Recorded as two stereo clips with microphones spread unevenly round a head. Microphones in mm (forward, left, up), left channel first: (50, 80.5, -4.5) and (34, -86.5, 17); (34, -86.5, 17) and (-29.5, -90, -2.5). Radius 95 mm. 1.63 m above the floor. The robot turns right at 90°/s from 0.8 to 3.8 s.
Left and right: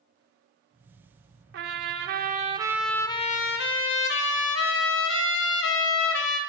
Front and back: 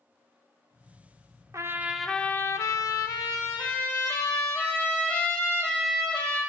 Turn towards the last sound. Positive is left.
turn(degrees=75)